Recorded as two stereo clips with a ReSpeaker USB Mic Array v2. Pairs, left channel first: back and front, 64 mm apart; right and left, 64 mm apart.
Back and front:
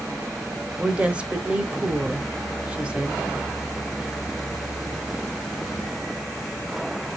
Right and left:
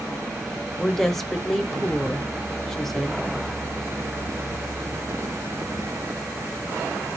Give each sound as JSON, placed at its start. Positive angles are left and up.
{"t": 0.8, "sound": "a woman speaking", "azimuth_deg": -15, "distance_m": 0.9}